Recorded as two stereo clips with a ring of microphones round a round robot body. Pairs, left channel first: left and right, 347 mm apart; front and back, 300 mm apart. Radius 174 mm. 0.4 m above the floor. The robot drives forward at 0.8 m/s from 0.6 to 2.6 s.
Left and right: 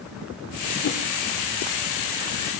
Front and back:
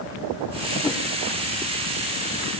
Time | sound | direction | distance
0.8 | a whoosh | 70° left | 0.8 m